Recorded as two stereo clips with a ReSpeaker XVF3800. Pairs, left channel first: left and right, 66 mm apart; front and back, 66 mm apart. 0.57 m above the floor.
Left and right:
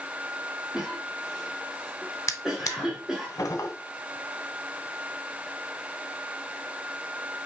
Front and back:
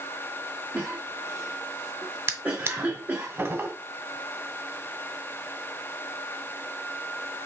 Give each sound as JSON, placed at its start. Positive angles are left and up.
{"t": 0.7, "sound": "a cough", "azimuth_deg": -165, "distance_m": 1.2}
{"t": 2.3, "sound": "a drawer", "azimuth_deg": 130, "distance_m": 0.9}